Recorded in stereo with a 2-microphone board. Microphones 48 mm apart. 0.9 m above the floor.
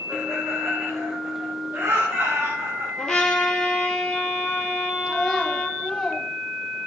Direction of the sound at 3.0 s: 10° left (ahead or behind).